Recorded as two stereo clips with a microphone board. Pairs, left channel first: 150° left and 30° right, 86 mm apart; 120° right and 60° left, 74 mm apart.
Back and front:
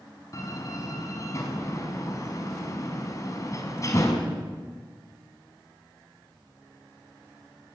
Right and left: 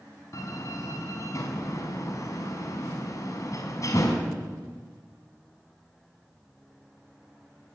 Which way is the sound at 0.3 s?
160° right.